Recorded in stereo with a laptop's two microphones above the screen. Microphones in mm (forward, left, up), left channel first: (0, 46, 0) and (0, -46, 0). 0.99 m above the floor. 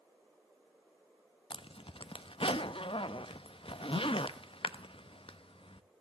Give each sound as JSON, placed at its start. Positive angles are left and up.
{"t": 1.5, "sound": "a zipper", "side_deg": 75, "distance_m": 0.7}